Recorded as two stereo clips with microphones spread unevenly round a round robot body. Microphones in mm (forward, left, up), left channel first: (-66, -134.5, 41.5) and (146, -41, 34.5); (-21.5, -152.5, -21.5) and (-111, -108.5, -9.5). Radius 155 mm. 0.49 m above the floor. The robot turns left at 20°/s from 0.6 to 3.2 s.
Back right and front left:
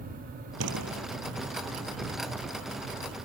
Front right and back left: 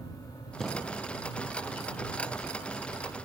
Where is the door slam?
65° left; by 1.1 s 55° left.